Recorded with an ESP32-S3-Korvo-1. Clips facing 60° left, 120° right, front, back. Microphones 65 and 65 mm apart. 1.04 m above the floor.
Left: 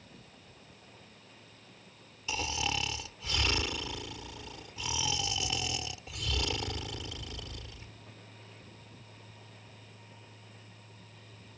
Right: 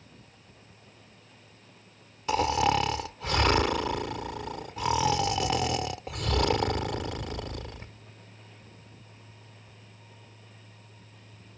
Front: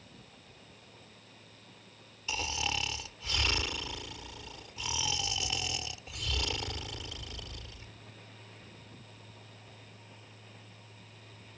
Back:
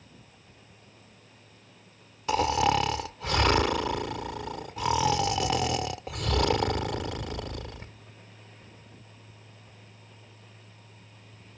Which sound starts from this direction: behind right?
Snoring, at 2.3 s.